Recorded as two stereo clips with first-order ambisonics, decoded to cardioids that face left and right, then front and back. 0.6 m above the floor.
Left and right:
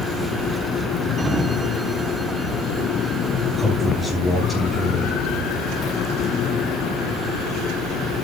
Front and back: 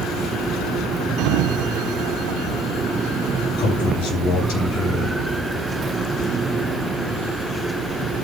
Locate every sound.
1.2 s a sliding door: 165° right, 0.9 m
3.6 s a man speaking: 5° right, 7.5 m